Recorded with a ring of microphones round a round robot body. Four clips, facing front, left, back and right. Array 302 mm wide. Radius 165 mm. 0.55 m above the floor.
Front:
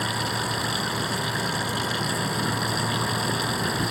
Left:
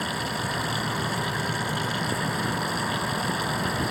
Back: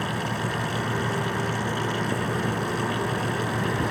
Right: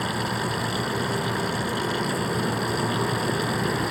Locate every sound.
0.0 s running water: straight ahead